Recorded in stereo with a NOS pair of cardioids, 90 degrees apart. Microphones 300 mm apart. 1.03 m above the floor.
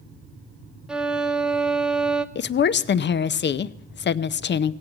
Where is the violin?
5° right, 0.6 m.